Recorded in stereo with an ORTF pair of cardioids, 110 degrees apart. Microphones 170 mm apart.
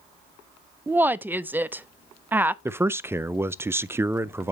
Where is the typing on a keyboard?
No typing on a keyboard in this recording.